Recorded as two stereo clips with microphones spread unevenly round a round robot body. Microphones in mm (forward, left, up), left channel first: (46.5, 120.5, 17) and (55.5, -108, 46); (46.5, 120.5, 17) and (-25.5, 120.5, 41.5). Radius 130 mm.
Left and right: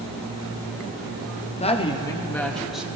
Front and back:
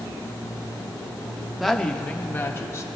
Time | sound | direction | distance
1.6 | a woman speaking | 65° left | 1.1 m